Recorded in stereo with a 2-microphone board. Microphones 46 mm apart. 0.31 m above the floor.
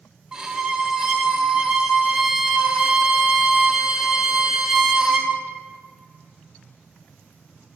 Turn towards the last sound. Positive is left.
turn(degrees=-15)  # may be behind; listen again after turning